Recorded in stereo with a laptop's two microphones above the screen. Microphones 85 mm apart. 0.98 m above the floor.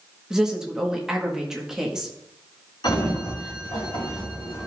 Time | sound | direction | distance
0.3 | a woman speaking | 5° right (ahead or behind) | 1.2 m
2.8 | a sliding door | 65° left (ahead or behind) | 3 m